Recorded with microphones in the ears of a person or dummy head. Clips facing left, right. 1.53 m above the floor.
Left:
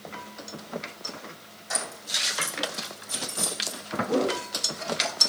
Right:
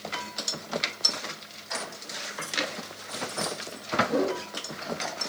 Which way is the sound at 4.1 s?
55° left (ahead or behind).